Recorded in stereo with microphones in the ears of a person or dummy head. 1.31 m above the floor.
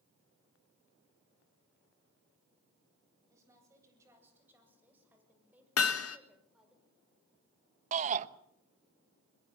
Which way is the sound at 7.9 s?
40° right (ahead or behind).